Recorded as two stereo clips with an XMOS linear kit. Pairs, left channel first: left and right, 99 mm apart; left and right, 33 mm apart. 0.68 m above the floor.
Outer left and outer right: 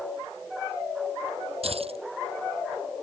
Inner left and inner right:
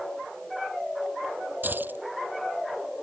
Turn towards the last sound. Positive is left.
turn(degrees=-80)